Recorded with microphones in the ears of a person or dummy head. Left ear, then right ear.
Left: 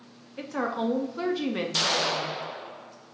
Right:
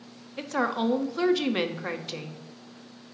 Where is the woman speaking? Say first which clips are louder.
Right 2 dB; 15° right (ahead or behind), 0.6 m.